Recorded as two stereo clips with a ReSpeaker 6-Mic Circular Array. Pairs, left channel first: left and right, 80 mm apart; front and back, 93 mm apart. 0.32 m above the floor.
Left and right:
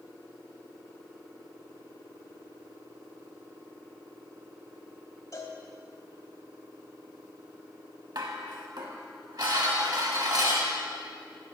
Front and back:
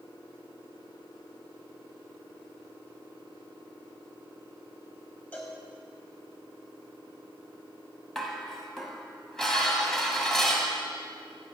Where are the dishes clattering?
85° right, 1.4 m.